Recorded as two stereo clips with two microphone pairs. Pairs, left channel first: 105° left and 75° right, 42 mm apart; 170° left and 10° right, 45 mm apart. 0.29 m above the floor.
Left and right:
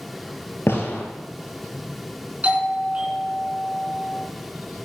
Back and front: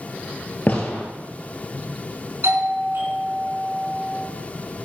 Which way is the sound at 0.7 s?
120° left.